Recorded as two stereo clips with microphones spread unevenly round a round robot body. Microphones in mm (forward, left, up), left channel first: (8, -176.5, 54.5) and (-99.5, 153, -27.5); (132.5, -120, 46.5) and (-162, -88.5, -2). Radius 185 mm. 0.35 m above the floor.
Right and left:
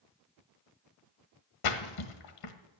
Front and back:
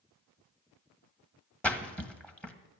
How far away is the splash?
About 1.7 m.